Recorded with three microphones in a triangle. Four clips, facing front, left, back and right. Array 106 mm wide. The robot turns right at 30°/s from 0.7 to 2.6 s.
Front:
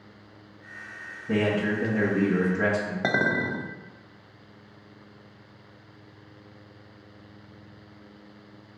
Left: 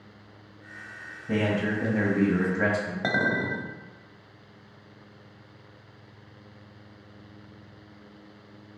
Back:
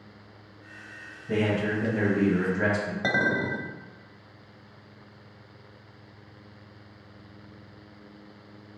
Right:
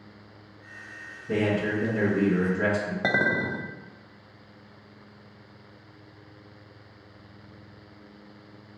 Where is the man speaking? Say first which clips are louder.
Right 1 dB, front 1 dB; 45° left, 1.2 m; by 2.9 s 85° left, 1.2 m.